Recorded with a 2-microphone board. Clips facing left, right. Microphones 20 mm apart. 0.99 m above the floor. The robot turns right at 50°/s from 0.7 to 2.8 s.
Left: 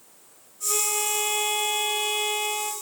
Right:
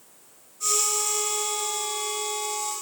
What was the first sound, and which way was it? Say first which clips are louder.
A violin: even; 35° left.